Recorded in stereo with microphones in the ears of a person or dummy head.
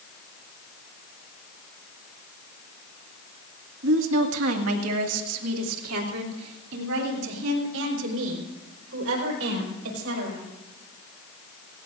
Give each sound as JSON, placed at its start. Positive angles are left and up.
{"t": 3.8, "sound": "a woman speaking", "side_deg": -70, "distance_m": 1.6}